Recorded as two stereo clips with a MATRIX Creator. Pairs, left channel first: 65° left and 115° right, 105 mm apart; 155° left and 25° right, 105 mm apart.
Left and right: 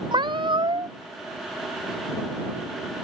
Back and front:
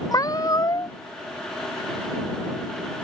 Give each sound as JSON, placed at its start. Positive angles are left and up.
{"t": 0.1, "sound": "a cat meowing", "azimuth_deg": -150}